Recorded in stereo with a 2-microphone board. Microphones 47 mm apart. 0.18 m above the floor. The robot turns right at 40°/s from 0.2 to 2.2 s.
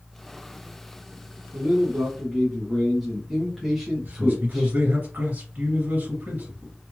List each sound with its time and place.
1.5 s a man speaking: 15° right (ahead or behind), 1.3 m; by 4.7 s centre (ahead or behind), 1.3 m
4.0 s a man speaking: 40° right (ahead or behind), 2.5 m